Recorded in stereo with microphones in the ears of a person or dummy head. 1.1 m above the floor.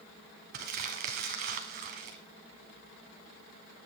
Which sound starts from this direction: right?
Crumpling, at 0.5 s.